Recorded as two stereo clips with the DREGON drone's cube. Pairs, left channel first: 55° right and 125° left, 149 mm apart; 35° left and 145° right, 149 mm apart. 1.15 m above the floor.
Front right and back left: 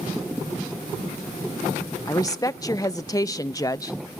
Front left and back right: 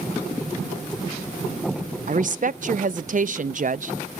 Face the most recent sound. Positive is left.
turn(degrees=-120)